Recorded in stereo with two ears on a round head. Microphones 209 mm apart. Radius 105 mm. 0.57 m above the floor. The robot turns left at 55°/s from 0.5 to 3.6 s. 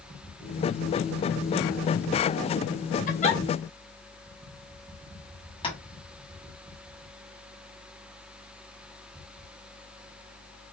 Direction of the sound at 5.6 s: 20° left (ahead or behind).